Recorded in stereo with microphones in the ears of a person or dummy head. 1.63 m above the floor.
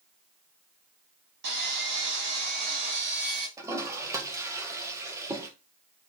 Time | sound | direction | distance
1.4 | sawing | 55° right (ahead or behind) | 1.6 m
3.6 | a toilet flushing | 15° right (ahead or behind) | 1.0 m